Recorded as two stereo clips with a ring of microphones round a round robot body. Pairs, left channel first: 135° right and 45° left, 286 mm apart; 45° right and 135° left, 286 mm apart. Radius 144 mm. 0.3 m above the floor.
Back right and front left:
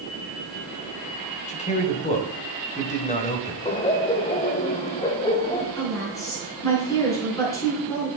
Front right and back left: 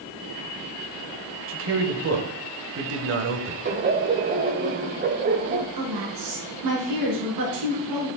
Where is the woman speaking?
145° left, 4.5 m.